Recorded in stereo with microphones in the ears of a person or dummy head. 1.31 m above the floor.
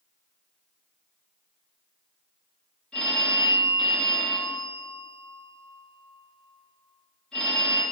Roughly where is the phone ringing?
Centre.